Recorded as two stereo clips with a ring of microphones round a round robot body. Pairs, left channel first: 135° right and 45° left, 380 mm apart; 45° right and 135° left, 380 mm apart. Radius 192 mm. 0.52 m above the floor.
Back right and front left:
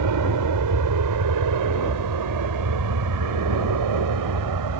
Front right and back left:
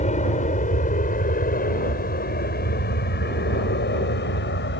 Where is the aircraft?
20° left; by 4.8 s 15° left.